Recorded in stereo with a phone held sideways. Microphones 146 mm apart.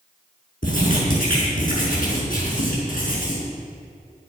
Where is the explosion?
I don't hear an explosion.